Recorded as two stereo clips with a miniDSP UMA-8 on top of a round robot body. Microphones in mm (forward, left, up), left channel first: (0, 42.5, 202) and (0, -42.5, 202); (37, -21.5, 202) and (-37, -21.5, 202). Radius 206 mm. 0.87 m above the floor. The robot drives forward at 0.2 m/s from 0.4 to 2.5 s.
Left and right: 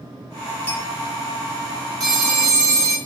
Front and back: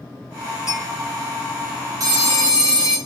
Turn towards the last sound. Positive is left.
turn(degrees=-140)